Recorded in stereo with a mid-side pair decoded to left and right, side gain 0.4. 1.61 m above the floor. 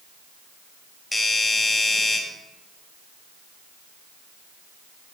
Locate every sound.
1.1 s a doorbell: 15° left, 4 m